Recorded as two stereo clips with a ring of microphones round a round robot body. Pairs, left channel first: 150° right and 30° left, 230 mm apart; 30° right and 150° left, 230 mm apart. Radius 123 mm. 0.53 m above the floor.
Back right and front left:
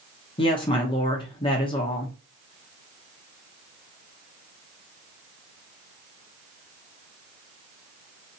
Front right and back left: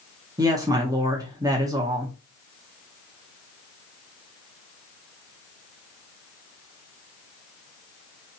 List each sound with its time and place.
0.4 s a woman speaking: 165° right, 0.8 m